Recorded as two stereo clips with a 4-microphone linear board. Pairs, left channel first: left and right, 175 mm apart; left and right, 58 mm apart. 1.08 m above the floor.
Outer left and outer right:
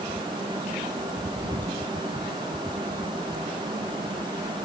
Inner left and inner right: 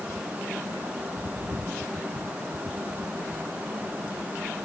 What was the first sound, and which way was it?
Only background noise.